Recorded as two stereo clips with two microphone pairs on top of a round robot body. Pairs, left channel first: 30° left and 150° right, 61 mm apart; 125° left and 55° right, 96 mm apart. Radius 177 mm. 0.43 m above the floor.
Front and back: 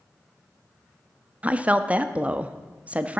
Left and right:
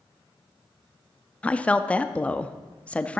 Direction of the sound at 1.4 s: 165° right.